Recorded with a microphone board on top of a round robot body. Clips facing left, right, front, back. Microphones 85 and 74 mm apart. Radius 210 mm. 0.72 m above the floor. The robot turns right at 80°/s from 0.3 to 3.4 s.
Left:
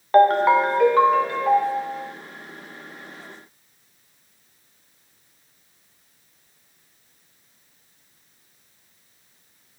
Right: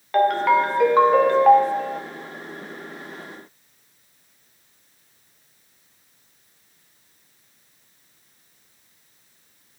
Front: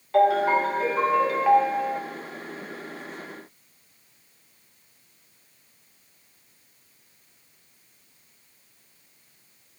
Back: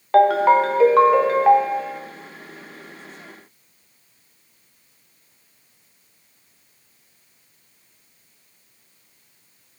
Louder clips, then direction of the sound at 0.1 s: Left 3 dB, back 5 dB; 145° left.